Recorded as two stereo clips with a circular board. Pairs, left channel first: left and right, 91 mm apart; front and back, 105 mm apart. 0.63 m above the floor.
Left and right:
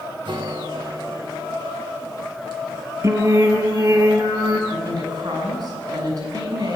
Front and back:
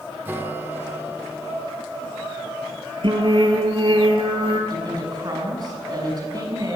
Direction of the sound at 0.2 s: 110° right.